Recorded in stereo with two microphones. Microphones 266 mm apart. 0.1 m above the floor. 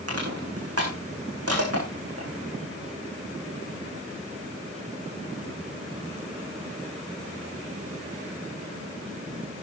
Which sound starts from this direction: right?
Crushing, at 0.1 s.